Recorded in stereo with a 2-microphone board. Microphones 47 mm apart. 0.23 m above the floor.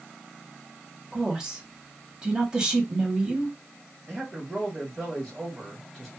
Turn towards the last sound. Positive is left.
turn(degrees=-5)  # may be behind; listen again after turning